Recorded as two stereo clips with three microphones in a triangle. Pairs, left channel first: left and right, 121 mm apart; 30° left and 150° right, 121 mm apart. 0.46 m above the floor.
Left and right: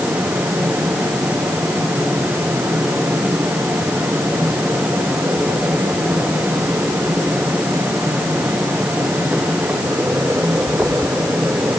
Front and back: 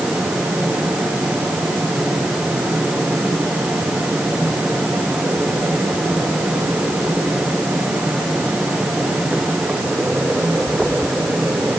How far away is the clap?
No clap in this recording.